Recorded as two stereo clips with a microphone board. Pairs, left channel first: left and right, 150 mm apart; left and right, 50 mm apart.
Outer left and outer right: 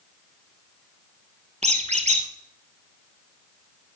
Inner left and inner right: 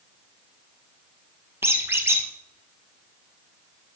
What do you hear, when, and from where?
1.6 s a squeak: 50° right (ahead or behind), 1.7 m